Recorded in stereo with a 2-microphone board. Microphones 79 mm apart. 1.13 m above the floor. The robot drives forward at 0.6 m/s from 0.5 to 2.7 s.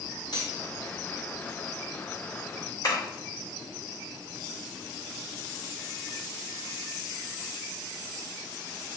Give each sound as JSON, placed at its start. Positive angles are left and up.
{"t": 0.3, "sound": "cutlery clinking", "side_deg": 65, "distance_m": 1.8}
{"t": 2.8, "sound": "tapping", "side_deg": 50, "distance_m": 3.0}